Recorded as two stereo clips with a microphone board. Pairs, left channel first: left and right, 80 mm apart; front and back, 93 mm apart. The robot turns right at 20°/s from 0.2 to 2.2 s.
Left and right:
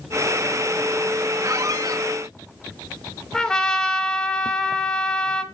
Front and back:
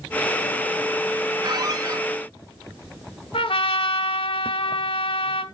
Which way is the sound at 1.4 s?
140° right.